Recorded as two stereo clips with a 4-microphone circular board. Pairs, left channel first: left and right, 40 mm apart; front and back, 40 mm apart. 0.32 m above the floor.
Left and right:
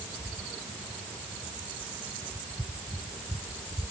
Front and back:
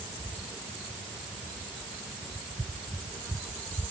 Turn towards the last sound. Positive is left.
No sound to turn to.